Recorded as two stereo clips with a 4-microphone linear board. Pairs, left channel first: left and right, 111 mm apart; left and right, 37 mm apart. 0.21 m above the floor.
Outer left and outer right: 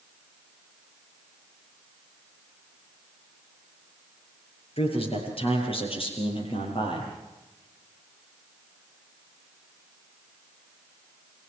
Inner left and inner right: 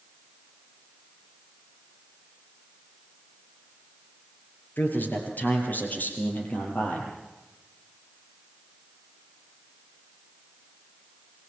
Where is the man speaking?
60° left (ahead or behind), 5.5 m; by 7.1 s 50° left (ahead or behind), 8 m.